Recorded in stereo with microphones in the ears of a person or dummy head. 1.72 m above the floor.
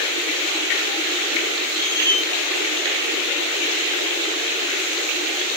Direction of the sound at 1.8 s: 20° left (ahead or behind).